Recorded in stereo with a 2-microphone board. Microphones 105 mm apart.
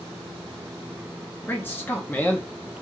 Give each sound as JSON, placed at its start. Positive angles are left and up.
{"t": 1.5, "sound": "a man speaking", "side_deg": 20, "distance_m": 0.5}